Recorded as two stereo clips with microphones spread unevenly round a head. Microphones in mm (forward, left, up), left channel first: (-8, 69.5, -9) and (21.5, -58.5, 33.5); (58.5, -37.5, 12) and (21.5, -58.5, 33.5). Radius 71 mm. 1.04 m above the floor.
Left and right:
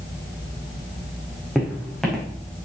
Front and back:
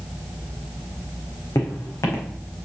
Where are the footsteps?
10° left, 4 m.